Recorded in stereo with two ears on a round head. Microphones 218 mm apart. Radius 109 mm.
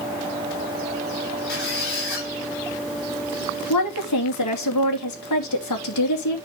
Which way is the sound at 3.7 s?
85° left.